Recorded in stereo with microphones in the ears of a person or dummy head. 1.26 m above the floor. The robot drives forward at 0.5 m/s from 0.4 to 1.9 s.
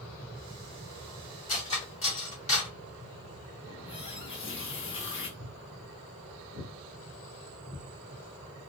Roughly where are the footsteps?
Right.